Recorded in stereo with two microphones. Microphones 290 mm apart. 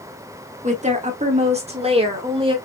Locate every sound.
0.6 s a woman speaking: 25° right (ahead or behind), 1.3 m; by 2.6 s 20° right (ahead or behind), 1.7 m